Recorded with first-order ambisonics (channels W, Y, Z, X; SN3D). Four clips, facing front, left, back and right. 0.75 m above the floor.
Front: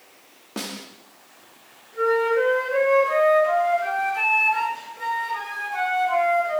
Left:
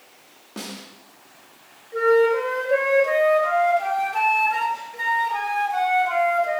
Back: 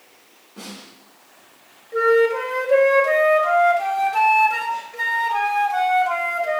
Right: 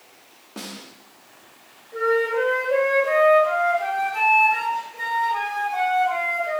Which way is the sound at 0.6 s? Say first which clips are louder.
Left 1 dB, front 5 dB; 5° left.